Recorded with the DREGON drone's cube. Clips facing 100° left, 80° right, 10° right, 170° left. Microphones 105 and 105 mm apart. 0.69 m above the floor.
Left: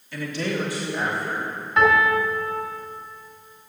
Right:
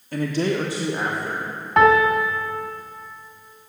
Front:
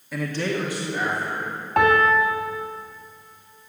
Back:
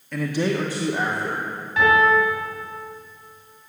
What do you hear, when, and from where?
0.1 s a man speaking: 95° right, 0.9 m; by 1.5 s 150° right, 2.5 m
1.8 s a piano: 45° right, 2 m